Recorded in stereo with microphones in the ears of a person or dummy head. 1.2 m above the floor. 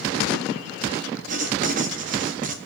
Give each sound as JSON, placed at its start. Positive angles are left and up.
{"t": 1.3, "sound": "writing", "side_deg": -55, "distance_m": 1.9}